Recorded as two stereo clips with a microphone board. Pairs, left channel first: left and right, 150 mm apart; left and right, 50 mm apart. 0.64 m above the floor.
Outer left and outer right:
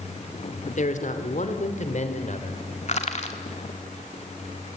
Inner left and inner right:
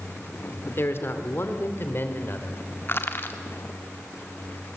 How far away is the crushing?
About 1.9 m.